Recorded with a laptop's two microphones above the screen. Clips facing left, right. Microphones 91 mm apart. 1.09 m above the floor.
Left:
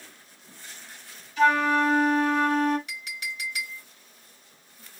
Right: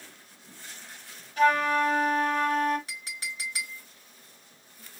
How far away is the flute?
About 3.5 m.